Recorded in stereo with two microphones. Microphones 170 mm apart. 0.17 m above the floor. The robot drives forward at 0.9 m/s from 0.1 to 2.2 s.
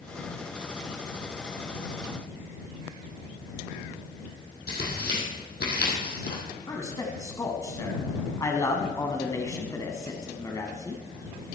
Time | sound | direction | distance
4.7 | tearing paper | 70° left (ahead or behind) | 3.5 m
6.7 | a man speaking | 20° left (ahead or behind) | 1.4 m